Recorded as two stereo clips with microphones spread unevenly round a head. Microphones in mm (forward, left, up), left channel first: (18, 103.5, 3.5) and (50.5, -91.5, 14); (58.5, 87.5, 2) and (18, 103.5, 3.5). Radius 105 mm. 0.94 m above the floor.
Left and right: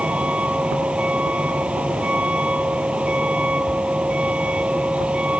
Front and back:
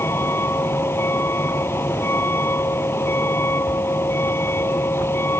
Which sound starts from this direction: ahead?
A vehicle, at 0.0 s.